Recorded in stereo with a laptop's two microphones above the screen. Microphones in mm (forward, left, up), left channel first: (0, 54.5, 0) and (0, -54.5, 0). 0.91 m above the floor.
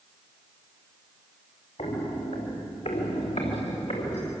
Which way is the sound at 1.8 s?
65° left (ahead or behind).